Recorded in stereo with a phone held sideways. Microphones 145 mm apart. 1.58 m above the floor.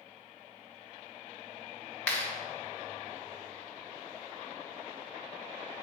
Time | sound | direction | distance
2.1 | a clap | 10° left (ahead or behind) | 1.6 m